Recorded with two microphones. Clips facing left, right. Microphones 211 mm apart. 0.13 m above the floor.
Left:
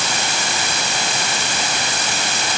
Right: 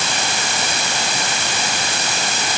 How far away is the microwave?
I don't hear a microwave.